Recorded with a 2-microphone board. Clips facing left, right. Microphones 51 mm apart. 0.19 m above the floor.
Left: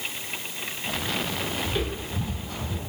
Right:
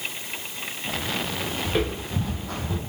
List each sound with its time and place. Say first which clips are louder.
1.6 s footsteps: right 3 dB; 70° right (ahead or behind), 7 m; by 2.8 s 85° right, 6.5 m